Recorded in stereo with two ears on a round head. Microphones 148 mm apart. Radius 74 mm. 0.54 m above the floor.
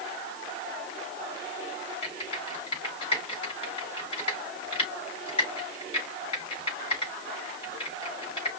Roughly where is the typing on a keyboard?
Left.